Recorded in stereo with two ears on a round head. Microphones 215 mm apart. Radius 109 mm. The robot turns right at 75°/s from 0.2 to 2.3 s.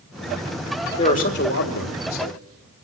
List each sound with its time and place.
1.0 s a man speaking: 20° left, 2.5 m; by 2.4 s 120° left, 2.5 m